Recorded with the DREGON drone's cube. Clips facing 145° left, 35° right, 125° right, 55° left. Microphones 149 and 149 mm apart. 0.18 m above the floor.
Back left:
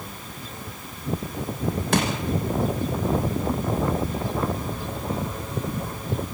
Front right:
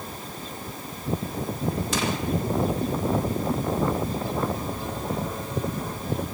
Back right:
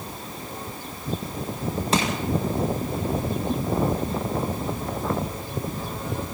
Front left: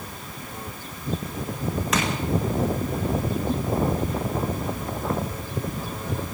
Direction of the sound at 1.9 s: 175° left.